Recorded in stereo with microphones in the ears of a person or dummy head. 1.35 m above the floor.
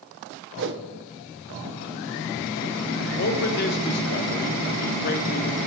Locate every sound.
0.6 s a whoosh: 55° right (ahead or behind), 0.6 m
3.2 s a man speaking: 50° left (ahead or behind), 0.9 m